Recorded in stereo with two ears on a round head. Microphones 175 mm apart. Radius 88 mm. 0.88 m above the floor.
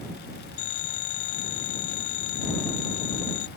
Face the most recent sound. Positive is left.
turn(degrees=80)